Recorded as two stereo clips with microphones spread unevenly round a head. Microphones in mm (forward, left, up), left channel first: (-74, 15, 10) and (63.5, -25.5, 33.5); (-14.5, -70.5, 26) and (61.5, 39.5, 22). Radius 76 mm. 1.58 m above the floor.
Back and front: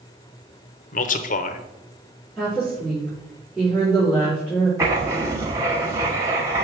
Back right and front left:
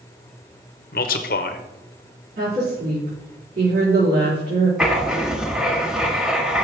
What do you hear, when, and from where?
0.9 s a man speaking: 160° right, 0.7 m
2.4 s a woman speaking: 70° left, 4 m
4.8 s writing: 25° right, 1.0 m